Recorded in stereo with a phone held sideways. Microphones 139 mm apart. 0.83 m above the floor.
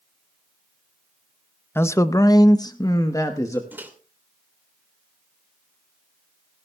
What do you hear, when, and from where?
1.8 s a man speaking: 15° left (ahead or behind), 0.6 m; by 3.6 s 20° left (ahead or behind), 1.1 m
3.7 s a microwave: 15° right (ahead or behind), 2.5 m